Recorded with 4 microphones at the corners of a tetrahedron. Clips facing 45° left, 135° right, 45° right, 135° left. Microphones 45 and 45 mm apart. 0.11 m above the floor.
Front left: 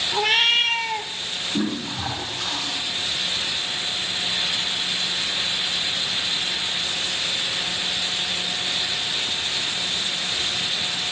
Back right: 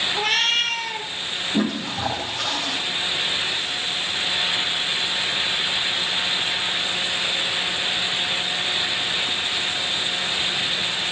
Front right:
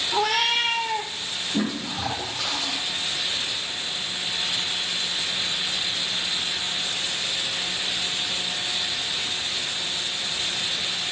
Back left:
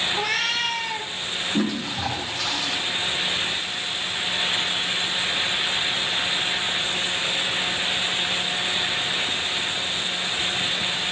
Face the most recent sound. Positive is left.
turn(degrees=-120)